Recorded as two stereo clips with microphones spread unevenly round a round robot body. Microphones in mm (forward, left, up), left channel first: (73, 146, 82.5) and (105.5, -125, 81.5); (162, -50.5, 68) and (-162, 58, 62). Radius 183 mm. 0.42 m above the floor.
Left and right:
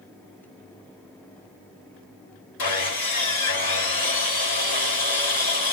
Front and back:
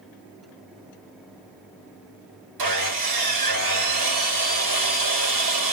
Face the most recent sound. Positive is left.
turn(degrees=140)